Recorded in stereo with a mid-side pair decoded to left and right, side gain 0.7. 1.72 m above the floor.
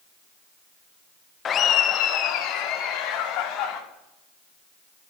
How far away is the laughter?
About 0.7 m.